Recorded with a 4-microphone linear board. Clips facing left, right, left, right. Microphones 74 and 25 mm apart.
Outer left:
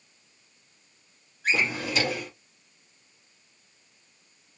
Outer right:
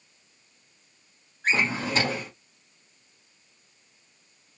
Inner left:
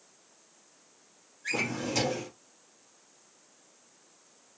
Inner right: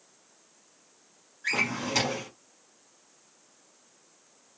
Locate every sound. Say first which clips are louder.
1.4 s a drawer: outer right 1 dB, inner right 3 dB; 35° right (ahead or behind), 1.3 m